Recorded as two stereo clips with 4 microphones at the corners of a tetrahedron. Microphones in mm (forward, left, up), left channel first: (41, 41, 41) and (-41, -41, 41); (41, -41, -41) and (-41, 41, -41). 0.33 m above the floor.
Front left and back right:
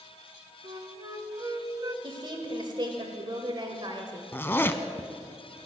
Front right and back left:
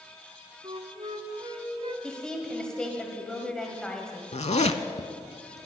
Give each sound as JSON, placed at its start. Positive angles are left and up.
{"t": 0.6, "sound": "a flute", "azimuth_deg": 170, "distance_m": 0.8}
{"t": 2.0, "sound": "a woman speaking", "azimuth_deg": -125, "distance_m": 1.4}
{"t": 4.3, "sound": "a zipper", "azimuth_deg": -25, "distance_m": 0.6}